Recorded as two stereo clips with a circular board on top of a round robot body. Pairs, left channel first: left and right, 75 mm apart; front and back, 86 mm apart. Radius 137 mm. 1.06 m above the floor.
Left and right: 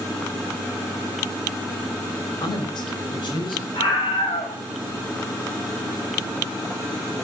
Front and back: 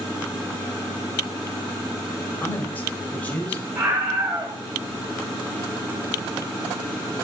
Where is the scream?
110° left, 8 m.